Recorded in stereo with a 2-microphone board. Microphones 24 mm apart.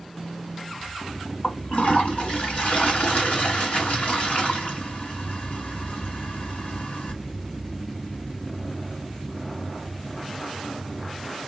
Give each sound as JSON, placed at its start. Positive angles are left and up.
{"t": 1.4, "sound": "a toilet flushing", "side_deg": 75, "distance_m": 2.0}